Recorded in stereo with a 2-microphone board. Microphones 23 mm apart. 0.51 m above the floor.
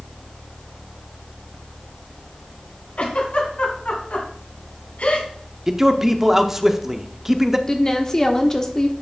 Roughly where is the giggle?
Left.